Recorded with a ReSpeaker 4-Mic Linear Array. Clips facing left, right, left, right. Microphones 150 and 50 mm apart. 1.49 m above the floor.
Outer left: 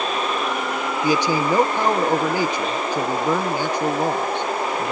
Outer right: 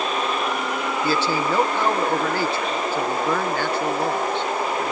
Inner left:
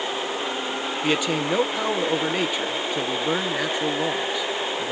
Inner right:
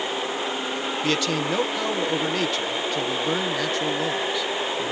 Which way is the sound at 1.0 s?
15° left (ahead or behind).